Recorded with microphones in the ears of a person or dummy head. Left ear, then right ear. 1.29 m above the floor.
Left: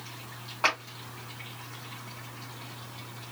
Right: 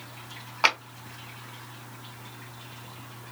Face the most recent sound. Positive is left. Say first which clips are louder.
# right 4 dB
turn(degrees=-30)  # may be behind; listen again after turning